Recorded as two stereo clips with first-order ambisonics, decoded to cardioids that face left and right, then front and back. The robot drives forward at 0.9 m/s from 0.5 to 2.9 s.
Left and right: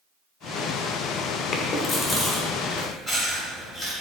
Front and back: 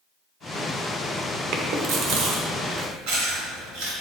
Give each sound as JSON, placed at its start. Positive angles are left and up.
{"t": 1.5, "sound": "chewing", "azimuth_deg": 150, "distance_m": 1.1}